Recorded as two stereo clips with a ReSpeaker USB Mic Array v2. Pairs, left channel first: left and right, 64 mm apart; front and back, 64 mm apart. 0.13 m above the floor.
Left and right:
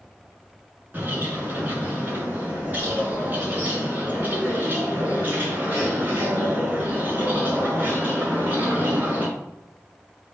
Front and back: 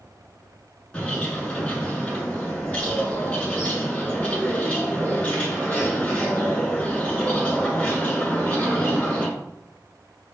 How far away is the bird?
About 1.7 m.